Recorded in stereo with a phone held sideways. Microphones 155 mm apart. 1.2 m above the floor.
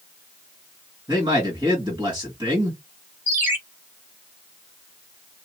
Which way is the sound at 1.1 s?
30° right (ahead or behind).